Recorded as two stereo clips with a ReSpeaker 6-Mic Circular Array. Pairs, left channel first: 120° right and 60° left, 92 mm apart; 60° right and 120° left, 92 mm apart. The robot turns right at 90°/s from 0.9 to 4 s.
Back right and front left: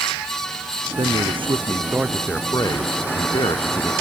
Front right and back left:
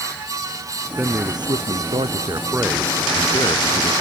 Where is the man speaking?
40° left; by 3.9 s 50° right.